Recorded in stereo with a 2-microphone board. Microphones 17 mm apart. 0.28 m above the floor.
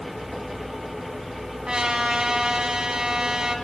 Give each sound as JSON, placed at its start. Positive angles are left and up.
{"t": 1.7, "sound": "a trumpet", "side_deg": -55, "distance_m": 1.4}